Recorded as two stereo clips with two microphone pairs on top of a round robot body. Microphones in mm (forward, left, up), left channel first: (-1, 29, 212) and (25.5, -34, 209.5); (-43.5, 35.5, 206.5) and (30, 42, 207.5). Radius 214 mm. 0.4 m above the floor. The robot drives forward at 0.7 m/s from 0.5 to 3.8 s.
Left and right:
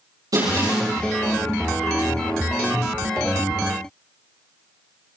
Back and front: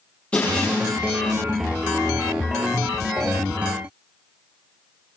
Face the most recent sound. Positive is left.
turn(degrees=-115)